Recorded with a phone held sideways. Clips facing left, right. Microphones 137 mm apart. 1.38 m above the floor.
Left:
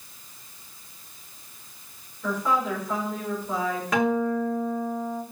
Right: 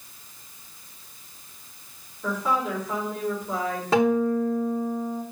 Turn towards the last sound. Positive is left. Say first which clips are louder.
# right 4 dB
turn(degrees=-30)  # may be behind; listen again after turning